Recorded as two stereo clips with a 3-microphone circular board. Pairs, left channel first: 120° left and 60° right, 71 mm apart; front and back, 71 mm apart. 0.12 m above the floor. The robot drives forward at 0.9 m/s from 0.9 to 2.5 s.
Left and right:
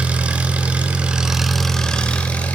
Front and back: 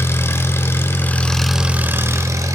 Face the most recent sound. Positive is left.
turn(degrees=180)